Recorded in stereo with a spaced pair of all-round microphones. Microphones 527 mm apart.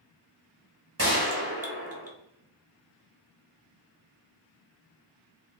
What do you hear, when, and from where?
1.0 s a gunshot: 30° right (ahead or behind), 0.8 m